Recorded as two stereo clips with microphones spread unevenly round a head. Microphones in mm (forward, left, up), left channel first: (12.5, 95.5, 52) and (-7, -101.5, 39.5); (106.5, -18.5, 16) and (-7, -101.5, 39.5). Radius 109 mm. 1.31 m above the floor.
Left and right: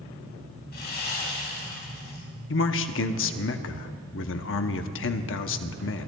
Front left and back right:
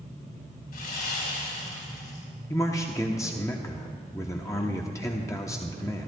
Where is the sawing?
45° left, 4 m.